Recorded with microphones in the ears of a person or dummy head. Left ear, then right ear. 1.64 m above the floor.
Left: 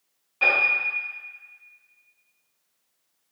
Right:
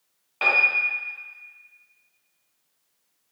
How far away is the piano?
About 1.9 m.